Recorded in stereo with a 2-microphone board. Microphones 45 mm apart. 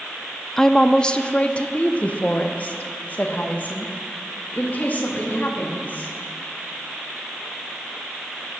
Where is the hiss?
I don't hear a hiss.